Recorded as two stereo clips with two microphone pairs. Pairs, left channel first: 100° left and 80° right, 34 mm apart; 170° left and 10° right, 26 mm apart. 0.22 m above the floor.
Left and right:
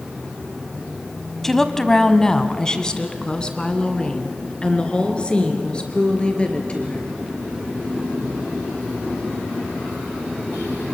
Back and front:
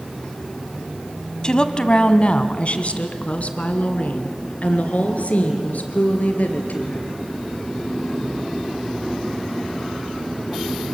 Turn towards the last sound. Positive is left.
turn(degrees=160)